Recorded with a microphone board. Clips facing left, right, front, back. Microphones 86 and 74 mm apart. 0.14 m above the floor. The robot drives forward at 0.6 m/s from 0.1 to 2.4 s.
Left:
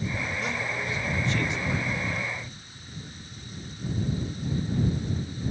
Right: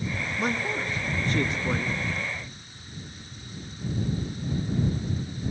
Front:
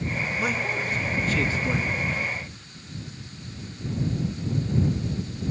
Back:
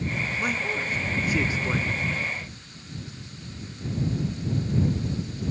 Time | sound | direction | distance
0.4 | a man speaking | 85° right | 1.9 m